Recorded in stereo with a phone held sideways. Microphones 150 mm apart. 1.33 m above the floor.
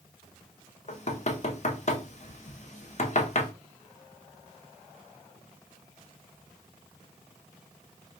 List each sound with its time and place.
0.9 s knocking: 50° left (ahead or behind), 0.6 m